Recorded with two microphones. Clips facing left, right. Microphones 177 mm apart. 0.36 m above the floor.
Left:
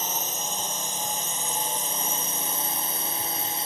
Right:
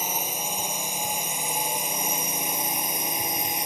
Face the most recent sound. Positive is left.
turn(degrees=-15)  # may be behind; listen again after turning